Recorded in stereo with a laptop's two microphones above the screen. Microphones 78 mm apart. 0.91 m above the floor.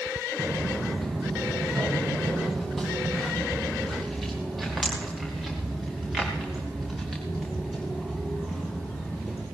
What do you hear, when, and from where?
0.4 s footsteps: centre (ahead or behind), 2.5 m